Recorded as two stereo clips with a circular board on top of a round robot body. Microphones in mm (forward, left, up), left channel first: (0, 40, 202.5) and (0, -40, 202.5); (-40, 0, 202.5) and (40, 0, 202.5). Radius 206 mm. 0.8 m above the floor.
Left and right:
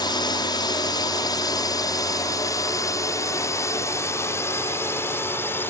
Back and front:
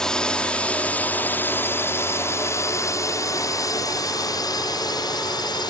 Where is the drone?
100° left; by 5.7 s 155° left.